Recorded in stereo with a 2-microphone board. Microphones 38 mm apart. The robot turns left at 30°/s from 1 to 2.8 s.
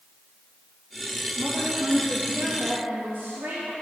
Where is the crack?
I don't hear a crack.